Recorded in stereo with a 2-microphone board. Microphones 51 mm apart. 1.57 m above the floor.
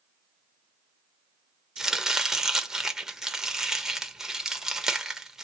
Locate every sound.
1.8 s chopping: 10° right (ahead or behind), 0.8 m